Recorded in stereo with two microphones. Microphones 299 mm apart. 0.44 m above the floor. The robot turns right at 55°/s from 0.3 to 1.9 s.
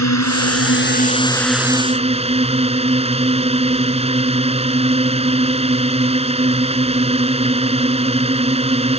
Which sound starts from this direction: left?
A drone, at 0.0 s.